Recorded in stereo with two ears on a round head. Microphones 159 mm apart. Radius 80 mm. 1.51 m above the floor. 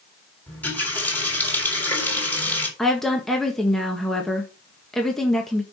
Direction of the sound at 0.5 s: 10° left (ahead or behind).